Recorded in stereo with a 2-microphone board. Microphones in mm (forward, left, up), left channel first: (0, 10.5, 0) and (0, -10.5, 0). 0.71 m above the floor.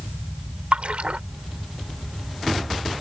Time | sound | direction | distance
0.7 | a splash | 65° right (ahead or behind) | ?